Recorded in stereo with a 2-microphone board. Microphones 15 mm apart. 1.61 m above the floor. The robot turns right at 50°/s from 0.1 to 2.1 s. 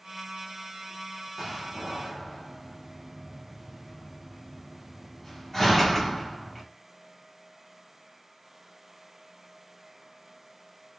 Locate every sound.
1.4 s a door slam: 15° right (ahead or behind), 1.0 m; by 6.6 s 15° left (ahead or behind), 1.0 m